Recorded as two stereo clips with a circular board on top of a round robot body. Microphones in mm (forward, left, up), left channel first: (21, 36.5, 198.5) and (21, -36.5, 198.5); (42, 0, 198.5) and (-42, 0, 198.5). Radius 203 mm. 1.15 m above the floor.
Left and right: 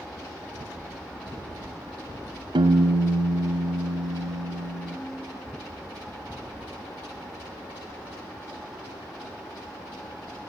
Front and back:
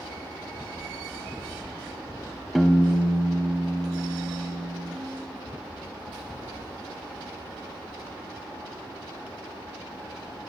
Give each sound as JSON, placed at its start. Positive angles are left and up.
{"t": 2.5, "sound": "a piano", "azimuth_deg": -90, "distance_m": 0.9}